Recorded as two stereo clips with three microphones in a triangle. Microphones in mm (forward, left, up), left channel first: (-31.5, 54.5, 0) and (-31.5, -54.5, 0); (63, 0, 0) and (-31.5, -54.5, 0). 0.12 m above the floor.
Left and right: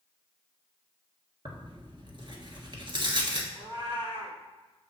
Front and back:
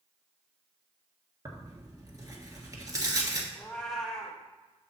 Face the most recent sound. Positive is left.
turn(degrees=-55)